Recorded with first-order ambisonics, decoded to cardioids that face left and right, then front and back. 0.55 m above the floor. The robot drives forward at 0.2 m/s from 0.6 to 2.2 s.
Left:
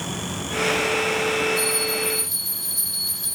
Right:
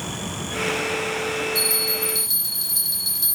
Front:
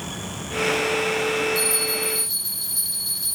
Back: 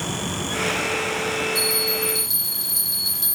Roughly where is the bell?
Behind right.